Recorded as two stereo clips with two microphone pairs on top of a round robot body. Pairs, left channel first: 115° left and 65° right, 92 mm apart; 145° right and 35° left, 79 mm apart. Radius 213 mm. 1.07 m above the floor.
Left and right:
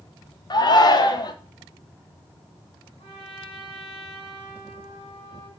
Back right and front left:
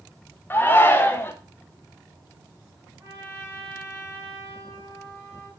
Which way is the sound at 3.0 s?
90° left.